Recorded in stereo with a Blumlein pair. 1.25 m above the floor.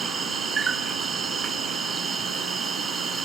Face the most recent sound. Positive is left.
turn(degrees=-20)